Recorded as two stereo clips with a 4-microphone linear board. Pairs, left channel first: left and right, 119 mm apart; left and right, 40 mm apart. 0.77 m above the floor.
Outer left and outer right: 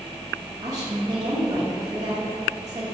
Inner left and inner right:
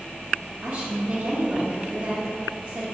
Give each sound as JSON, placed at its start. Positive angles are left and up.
{"t": 0.6, "sound": "a woman speaking", "side_deg": -35, "distance_m": 0.7}